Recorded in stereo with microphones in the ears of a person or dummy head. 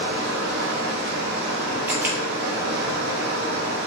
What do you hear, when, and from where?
0.0 s running water: 55° right (ahead or behind), 1.2 m
1.9 s a camera shutter: 15° right (ahead or behind), 1.1 m